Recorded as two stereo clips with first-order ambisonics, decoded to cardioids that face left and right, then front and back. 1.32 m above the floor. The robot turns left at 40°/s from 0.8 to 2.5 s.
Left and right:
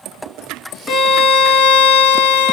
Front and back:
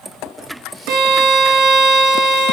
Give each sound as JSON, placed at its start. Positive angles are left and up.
{"t": 0.9, "sound": "a violin", "azimuth_deg": 150, "distance_m": 1.3}